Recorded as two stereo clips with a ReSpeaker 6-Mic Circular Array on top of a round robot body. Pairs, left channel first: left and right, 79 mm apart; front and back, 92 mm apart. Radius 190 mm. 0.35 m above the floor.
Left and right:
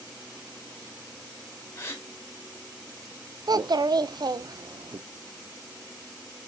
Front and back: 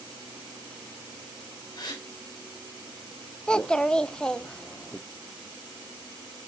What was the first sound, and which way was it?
A gasp, 35° left.